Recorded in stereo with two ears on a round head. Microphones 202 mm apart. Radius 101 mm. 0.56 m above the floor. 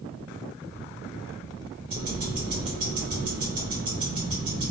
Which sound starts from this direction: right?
Ticking, at 1.9 s.